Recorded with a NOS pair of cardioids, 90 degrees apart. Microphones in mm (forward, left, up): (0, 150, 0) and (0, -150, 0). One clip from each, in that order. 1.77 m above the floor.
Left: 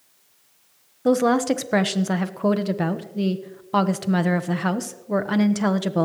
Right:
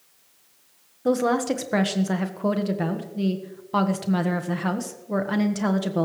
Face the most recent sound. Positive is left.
turn(degrees=20)